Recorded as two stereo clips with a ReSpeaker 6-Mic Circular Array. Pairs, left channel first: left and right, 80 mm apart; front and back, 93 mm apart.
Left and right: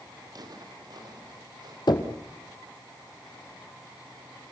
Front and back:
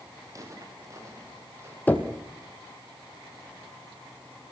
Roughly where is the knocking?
Left.